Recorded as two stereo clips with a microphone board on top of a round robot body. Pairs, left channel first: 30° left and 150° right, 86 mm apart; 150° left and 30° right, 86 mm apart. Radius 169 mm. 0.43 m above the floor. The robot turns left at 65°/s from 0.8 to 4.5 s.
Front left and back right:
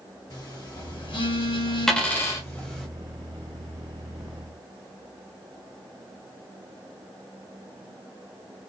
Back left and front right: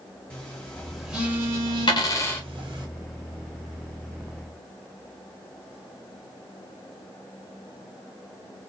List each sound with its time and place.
0.3 s a phone buzzing: 70° left, 1.2 m; by 2.9 s 65° right, 1.2 m
1.9 s a dropped coin: 115° left, 0.8 m; by 2.5 s 75° left, 0.8 m